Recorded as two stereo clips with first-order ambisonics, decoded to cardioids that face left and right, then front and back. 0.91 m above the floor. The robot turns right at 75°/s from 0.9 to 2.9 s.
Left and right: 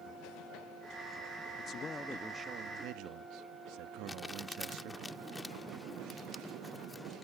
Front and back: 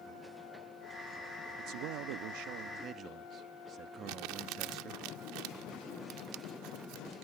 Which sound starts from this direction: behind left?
A man speaking, at 1.6 s.